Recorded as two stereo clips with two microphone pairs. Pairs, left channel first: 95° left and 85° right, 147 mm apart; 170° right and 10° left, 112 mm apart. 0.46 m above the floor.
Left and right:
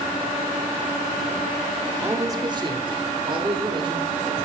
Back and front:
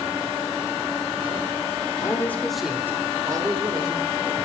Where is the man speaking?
150° right, 1.2 m; by 4.1 s 30° right, 2.5 m.